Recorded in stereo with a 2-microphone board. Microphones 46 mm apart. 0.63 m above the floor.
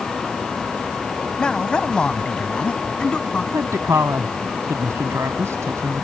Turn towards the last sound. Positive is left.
turn(degrees=-80)